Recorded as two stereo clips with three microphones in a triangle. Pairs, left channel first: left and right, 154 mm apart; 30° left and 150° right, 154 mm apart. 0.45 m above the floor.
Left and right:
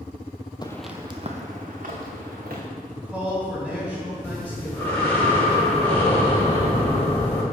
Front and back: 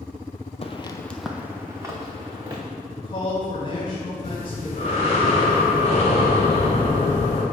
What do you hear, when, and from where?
0.6 s footsteps: 45° left, 0.6 m; by 2.6 s 85° right, 2 m
2.9 s a man speaking: 10° right, 2.0 m
4.2 s breathing: 15° left, 1.4 m